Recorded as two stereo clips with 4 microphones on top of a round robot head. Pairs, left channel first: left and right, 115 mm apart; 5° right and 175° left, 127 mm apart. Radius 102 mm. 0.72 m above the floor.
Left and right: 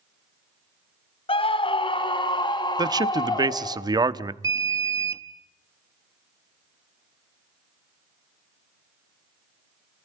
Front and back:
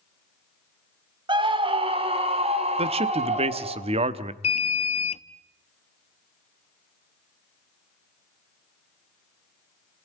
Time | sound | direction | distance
1.3 | a scream | 125° left | 1.6 m
2.8 | a man speaking | 145° right | 1.2 m
4.4 | an alarm | 30° right | 0.9 m